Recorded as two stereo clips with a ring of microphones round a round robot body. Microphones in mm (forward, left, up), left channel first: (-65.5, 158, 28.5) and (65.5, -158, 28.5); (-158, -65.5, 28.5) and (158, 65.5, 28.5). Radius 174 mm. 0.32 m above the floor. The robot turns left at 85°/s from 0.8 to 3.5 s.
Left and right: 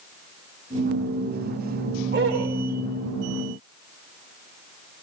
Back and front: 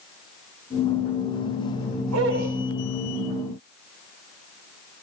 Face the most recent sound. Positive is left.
turn(degrees=-125)